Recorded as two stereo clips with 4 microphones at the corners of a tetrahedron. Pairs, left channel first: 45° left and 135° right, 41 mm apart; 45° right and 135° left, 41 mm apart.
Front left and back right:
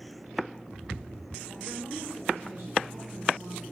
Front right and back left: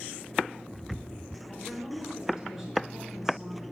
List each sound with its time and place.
1.5 s a woman speaking: 145° right, 7.5 m